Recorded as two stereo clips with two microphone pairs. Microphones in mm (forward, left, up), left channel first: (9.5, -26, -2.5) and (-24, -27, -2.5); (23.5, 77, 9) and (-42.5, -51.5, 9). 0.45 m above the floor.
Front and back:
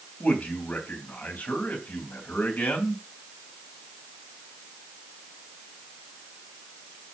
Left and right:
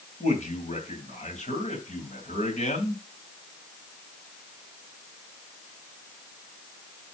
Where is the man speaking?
30° left, 3 m.